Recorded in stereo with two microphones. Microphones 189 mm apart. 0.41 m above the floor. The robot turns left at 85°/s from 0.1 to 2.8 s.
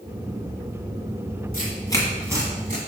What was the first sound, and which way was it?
Tearing paper, 50° left (ahead or behind).